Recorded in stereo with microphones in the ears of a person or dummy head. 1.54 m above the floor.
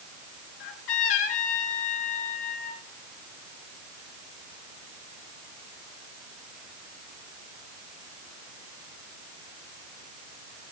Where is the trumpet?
70° left (ahead or behind), 4.5 m.